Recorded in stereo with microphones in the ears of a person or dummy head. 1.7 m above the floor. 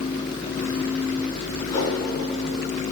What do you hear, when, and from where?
1.6 s a whoosh: 25° left (ahead or behind), 3.5 m